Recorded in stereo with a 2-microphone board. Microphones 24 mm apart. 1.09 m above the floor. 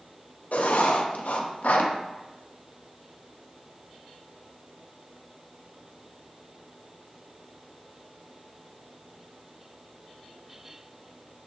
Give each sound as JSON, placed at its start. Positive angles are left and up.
{"t": 0.5, "sound": "writing", "side_deg": 80, "distance_m": 0.8}